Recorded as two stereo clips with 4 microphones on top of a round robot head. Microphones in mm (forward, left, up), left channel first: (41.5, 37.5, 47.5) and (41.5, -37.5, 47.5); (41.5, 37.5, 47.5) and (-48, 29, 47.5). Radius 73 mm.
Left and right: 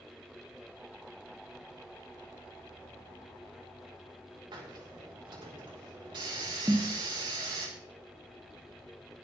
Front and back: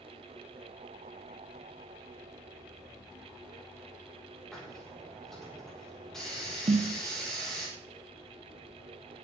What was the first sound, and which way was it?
A hiss, 80° right.